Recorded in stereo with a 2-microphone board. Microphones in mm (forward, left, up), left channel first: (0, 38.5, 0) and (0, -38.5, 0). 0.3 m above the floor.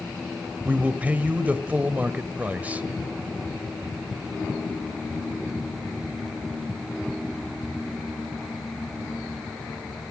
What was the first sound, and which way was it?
A man speaking, 20° right (ahead or behind).